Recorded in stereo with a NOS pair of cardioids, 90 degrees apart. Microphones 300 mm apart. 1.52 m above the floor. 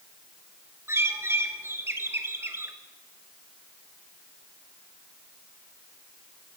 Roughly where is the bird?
Ahead.